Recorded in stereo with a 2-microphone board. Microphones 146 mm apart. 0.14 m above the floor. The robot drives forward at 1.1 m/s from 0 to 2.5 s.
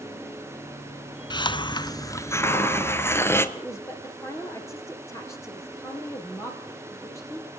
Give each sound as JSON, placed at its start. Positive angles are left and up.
{"t": 1.3, "sound": "a hiss", "side_deg": 30, "distance_m": 0.7}
{"t": 3.5, "sound": "a woman speaking", "side_deg": 20, "distance_m": 4.0}